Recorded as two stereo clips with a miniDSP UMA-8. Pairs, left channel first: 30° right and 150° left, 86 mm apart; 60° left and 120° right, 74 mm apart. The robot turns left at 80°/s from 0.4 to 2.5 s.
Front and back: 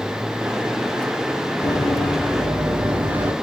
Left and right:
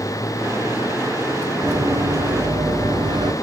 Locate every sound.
1.6 s running footsteps: 55° right, 3 m; by 3.3 s 145° right, 2 m